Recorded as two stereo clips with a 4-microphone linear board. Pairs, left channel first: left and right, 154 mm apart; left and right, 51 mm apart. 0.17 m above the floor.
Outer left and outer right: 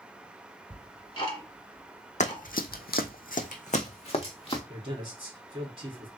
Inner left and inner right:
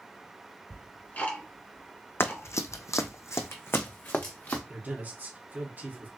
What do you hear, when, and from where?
0.7 s ticking: 30° left (ahead or behind), 1.8 m
2.2 s running footsteps: 50° left (ahead or behind), 0.7 m; by 4.6 s 35° left (ahead or behind), 1.3 m
4.7 s a man speaking: 35° right (ahead or behind), 2.0 m